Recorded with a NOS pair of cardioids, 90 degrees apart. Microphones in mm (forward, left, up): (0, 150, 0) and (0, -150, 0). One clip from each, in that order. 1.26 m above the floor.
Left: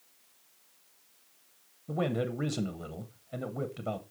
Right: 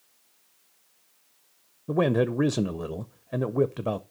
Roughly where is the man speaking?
Ahead right.